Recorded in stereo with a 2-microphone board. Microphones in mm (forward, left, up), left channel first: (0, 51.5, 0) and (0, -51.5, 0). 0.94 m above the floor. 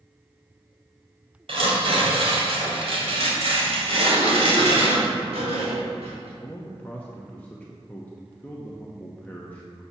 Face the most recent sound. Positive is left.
turn(degrees=15)  # may be behind; listen again after turning